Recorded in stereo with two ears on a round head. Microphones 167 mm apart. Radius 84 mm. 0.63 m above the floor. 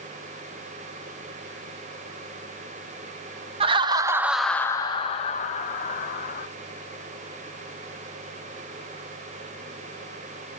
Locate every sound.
3.6 s laughter: 30° right (ahead or behind), 0.7 m; by 6.5 s 45° left (ahead or behind), 1.4 m